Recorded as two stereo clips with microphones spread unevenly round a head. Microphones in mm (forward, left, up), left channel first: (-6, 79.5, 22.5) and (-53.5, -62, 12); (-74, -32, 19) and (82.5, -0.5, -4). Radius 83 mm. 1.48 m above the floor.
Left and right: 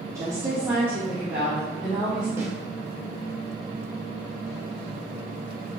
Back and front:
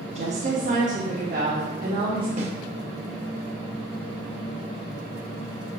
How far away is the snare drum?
About 1.8 m.